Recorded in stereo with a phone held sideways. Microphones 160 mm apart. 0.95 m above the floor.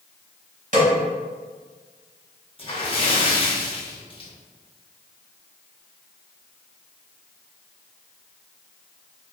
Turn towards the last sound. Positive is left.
turn(degrees=35)  # may be behind; listen again after turning